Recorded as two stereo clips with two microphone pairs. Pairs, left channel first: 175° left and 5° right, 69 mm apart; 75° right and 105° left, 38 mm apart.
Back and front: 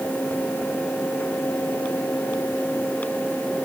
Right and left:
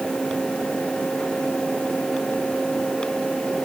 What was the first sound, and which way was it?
Only background noise.